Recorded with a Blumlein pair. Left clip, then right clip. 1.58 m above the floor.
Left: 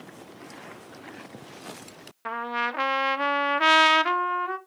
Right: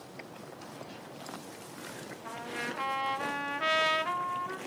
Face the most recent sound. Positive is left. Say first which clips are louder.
# left 10 dB
turn(degrees=60)